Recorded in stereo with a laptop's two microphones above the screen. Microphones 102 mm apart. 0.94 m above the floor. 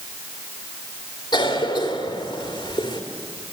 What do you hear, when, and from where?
1.3 s a cough: 50° left (ahead or behind), 2.5 m